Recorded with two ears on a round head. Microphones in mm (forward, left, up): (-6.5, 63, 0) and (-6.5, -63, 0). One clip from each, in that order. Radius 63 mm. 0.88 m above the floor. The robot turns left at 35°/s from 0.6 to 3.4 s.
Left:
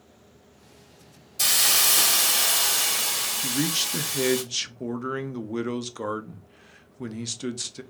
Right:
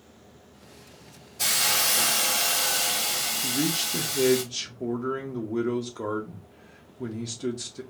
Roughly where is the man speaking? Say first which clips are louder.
Left 1 dB; left.